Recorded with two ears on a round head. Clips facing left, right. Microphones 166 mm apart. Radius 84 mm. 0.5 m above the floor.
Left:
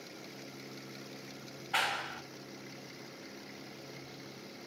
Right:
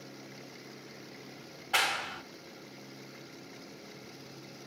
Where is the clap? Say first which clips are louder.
Right 2 dB; 55° right (ahead or behind), 1.2 m.